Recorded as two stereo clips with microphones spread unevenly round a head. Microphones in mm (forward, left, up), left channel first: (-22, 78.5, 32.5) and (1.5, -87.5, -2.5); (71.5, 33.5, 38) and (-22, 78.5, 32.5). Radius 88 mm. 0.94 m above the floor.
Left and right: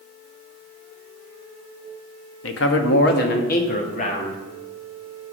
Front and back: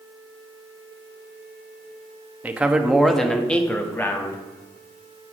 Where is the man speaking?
80° left, 1.1 m; by 4.4 s 40° left, 1.6 m.